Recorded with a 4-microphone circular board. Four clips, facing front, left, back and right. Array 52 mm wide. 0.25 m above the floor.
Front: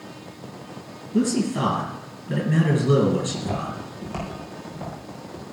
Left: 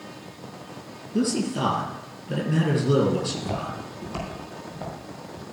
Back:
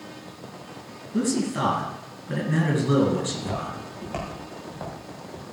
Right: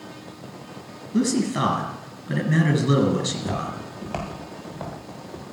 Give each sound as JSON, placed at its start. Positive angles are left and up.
{"t": 1.1, "sound": "a man speaking", "azimuth_deg": -100, "distance_m": 3.5}
{"t": 3.2, "sound": "footsteps", "azimuth_deg": -105, "distance_m": 6.5}